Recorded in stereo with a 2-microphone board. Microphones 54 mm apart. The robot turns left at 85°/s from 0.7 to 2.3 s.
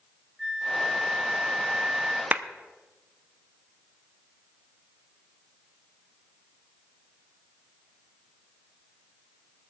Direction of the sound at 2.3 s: 30° right (ahead or behind).